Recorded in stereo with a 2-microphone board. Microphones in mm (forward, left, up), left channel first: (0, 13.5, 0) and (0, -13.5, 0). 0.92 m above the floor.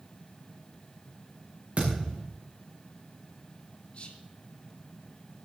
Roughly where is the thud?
Right.